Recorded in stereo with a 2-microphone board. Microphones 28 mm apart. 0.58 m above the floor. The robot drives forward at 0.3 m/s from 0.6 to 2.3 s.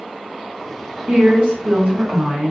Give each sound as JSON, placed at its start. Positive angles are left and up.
{"t": 1.1, "sound": "a woman speaking", "side_deg": -70, "distance_m": 1.9}